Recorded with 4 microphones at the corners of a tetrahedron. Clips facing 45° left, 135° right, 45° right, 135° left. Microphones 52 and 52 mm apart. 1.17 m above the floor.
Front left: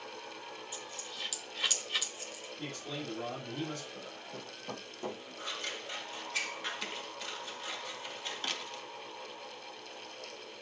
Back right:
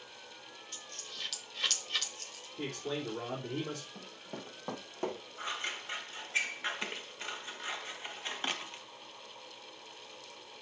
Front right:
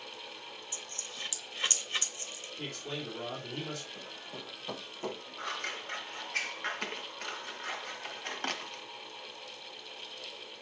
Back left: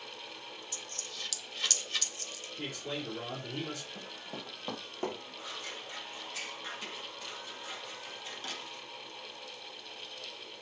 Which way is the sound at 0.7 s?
30° right.